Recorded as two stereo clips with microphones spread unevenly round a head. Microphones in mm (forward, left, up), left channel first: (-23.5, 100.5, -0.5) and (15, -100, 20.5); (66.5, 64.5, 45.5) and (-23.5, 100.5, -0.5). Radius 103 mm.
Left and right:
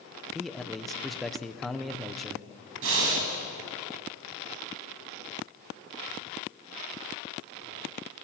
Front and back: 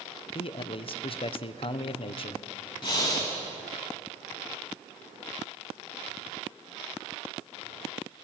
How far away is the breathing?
About 3.5 m.